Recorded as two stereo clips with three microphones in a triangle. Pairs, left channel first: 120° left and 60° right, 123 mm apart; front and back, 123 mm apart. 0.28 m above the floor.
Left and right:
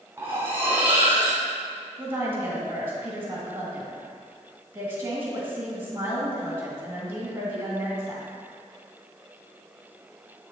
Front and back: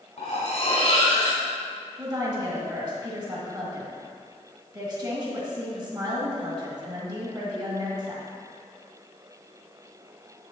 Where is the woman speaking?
130° right, 2 m.